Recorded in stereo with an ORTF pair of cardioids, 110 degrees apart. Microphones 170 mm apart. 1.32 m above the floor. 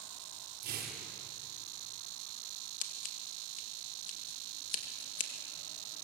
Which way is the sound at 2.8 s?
50° left.